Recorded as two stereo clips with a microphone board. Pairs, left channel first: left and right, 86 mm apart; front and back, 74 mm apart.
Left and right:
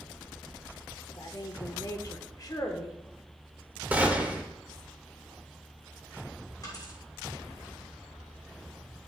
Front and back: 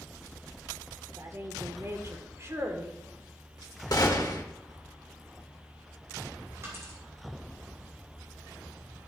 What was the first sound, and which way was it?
A woman speaking, 130° left.